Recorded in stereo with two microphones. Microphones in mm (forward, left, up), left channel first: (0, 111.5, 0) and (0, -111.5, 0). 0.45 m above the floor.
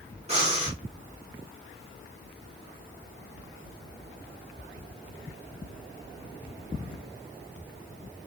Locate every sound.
0.3 s breathing: 30° right (ahead or behind), 1.0 m